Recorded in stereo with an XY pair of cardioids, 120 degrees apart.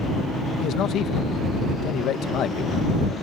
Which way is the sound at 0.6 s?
65° left.